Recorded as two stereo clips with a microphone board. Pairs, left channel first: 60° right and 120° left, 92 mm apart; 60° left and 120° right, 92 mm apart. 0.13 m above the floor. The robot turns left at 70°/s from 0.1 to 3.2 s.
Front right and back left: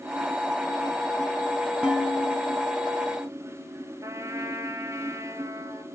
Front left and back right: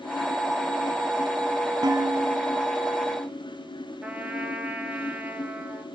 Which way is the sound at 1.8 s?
160° right.